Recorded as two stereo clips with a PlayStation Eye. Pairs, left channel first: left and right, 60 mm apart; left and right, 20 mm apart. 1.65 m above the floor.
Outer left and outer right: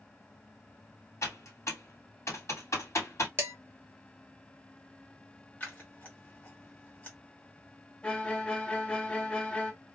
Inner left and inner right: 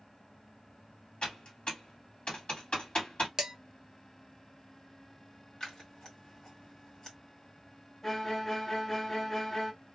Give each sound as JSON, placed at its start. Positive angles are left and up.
{"t": 1.2, "sound": "typing on a keyboard", "side_deg": 55, "distance_m": 1.6}
{"t": 3.4, "sound": "dishes clattering", "side_deg": -40, "distance_m": 1.0}
{"t": 5.6, "sound": "scissors", "side_deg": 30, "distance_m": 1.8}
{"t": 8.0, "sound": "a violin", "side_deg": 15, "distance_m": 0.6}